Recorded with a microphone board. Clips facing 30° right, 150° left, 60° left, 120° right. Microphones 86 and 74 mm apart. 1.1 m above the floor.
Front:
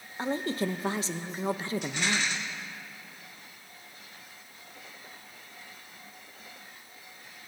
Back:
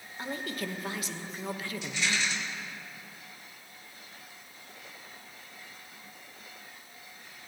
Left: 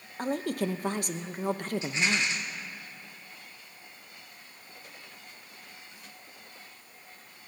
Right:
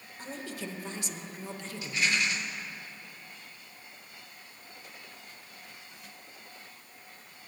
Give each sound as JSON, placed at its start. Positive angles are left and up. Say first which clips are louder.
{"t": 0.2, "sound": "a woman speaking", "louder": "front 6 dB, left 10 dB", "azimuth_deg": 30, "distance_m": 0.7}
{"t": 1.8, "sound": "a rattle", "louder": "back 2 dB, right 2 dB", "azimuth_deg": 0, "distance_m": 2.5}